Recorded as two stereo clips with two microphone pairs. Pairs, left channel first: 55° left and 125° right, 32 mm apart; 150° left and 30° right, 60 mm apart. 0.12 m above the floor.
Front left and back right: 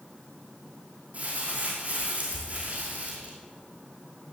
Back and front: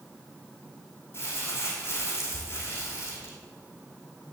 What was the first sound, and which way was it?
Crumpling, 160° right.